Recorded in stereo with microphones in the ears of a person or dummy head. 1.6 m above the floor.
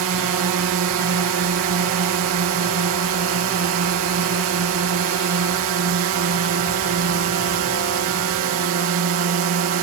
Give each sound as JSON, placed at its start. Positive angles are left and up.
{"t": 0.0, "sound": "a drone", "side_deg": -70}